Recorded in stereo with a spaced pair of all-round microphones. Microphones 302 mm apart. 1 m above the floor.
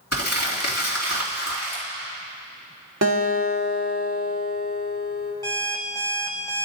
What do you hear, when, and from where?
0.1 s crumpling: 60° left (ahead or behind), 2 m
3.0 s a guitar: 60° right (ahead or behind), 1.6 m
5.4 s an alarm clock: 10° left (ahead or behind), 2 m